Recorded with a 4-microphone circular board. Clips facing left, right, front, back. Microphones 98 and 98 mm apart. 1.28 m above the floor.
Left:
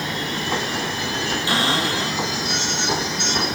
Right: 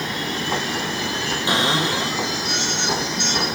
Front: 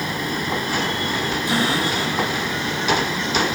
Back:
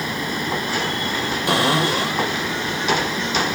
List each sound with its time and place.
1.5 s a cupboard door: 160° right, 6.5 m